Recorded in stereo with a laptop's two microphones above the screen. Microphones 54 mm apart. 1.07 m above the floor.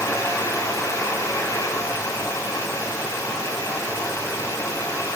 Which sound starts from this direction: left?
A fan, at 0.0 s.